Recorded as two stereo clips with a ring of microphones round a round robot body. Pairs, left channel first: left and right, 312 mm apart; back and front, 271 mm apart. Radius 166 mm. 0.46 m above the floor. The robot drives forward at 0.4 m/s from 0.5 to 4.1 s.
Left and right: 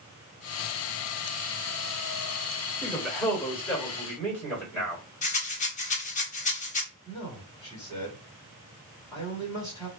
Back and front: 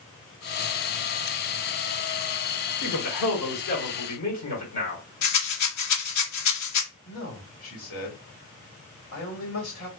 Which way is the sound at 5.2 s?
160° left.